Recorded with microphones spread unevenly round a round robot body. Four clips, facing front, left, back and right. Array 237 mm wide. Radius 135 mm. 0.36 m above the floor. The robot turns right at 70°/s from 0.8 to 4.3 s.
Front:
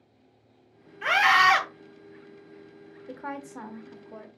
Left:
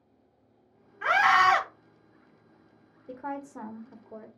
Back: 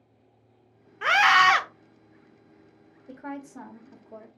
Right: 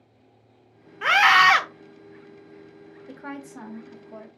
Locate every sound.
1.0 s a scream: 155° right, 1.1 m; by 1.6 s 110° right, 1.1 m
3.1 s a woman speaking: 20° left, 1.2 m; by 4.3 s 105° left, 1.2 m